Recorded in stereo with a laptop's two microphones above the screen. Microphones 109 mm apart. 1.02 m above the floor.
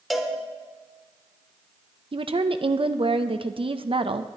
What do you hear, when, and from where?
0.1 s a cowbell: centre (ahead or behind), 0.8 m
2.1 s a woman speaking: 55° right (ahead or behind), 0.5 m